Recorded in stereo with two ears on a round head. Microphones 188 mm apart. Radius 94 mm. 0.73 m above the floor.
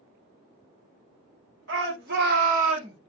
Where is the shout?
60° right (ahead or behind), 1.3 m; by 3.0 s 25° right (ahead or behind), 1.0 m.